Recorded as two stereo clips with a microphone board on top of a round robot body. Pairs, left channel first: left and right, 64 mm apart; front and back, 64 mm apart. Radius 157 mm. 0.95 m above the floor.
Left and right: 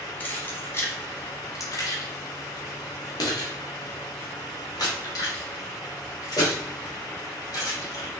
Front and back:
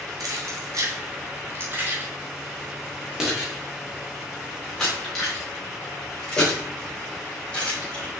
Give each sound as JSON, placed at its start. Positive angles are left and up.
{"t": 0.2, "sound": "keys jangling", "azimuth_deg": 155, "distance_m": 1.5}